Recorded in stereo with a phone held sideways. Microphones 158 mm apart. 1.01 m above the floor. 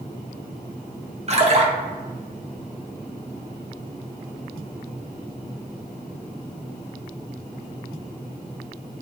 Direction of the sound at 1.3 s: 45° right (ahead or behind).